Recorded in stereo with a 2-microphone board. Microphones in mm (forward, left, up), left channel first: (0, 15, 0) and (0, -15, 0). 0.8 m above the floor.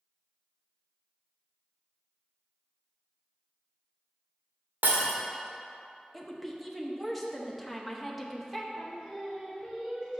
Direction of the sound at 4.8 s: 85° right.